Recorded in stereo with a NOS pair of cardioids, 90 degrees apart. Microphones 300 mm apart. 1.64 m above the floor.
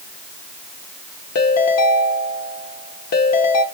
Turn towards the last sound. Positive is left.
turn(degrees=70)